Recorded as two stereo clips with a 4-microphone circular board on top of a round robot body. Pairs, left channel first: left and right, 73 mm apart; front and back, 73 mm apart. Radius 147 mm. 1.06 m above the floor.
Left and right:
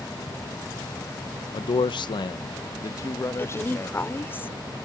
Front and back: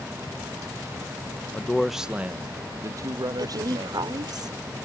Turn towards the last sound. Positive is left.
turn(degrees=150)